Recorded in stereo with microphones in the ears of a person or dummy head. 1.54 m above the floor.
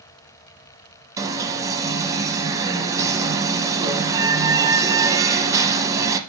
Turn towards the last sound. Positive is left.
turn(degrees=-10)  # may be behind; listen again after turning